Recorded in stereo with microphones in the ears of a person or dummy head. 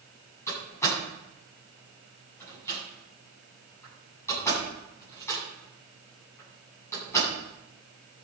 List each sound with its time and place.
0.5 s a door slam: 20° left (ahead or behind), 10 m